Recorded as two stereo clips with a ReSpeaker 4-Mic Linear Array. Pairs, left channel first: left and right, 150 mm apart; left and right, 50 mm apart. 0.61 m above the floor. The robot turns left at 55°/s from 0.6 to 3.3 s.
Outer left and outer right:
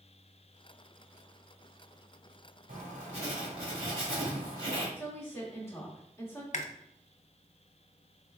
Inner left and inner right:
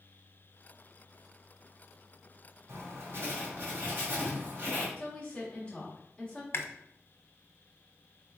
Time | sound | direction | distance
2.7 | writing | 105° right | 1.7 m
5.0 | a woman speaking | 15° left (ahead or behind) | 1.3 m
6.5 | chewing | 55° left (ahead or behind) | 0.5 m